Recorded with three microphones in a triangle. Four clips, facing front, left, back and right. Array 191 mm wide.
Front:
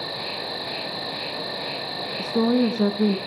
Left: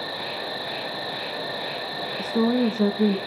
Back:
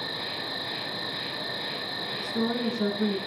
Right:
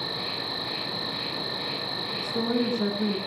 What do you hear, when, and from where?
0.0 s an insect: 55° left, 1.0 m
2.2 s a woman speaking: 30° left, 1.7 m